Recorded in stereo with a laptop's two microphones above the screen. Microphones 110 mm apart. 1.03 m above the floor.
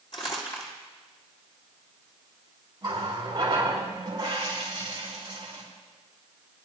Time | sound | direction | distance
0.1 | crumpling | 50° left (ahead or behind) | 2.5 m
2.8 | a running tap | 45° right (ahead or behind) | 2.5 m